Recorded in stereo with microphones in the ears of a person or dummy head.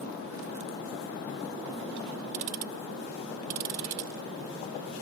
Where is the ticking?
40° right (ahead or behind).